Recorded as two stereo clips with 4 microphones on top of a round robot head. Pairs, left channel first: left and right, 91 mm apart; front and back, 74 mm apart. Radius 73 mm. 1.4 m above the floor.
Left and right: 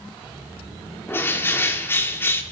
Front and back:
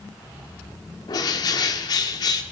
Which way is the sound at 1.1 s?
25° left.